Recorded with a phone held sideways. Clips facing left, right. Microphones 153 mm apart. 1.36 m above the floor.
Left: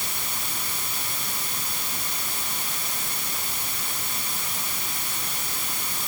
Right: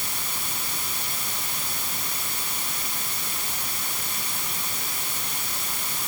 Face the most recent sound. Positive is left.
No sound to turn to.